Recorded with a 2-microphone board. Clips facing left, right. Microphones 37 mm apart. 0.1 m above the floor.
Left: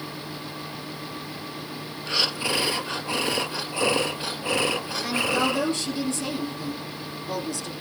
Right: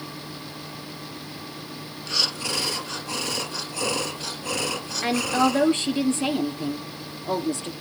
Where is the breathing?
25° left (ahead or behind), 1.1 m.